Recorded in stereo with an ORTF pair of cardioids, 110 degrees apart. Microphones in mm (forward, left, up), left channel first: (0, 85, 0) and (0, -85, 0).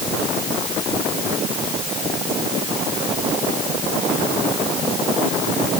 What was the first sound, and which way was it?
Only background noise.